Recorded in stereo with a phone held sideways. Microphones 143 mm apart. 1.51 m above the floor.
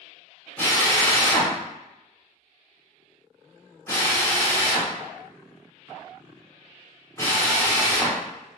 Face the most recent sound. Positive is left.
turn(degrees=20)  # may be behind; listen again after turning